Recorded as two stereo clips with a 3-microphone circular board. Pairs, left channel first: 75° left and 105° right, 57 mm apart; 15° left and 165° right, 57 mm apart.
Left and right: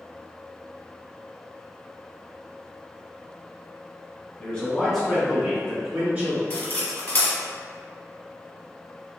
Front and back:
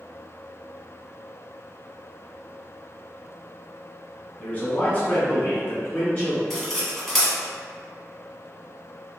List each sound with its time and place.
4.4 s a man speaking: 35° left, 1.1 m; by 6.4 s 40° right, 1.9 m
6.5 s cutlery clinking: 100° left, 0.9 m